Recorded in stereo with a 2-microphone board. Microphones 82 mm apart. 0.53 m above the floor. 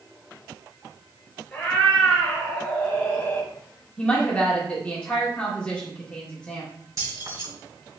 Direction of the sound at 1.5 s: 5° left (ahead or behind).